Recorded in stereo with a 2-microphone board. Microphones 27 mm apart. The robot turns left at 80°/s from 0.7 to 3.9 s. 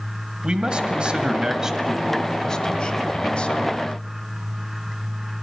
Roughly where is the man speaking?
Ahead right.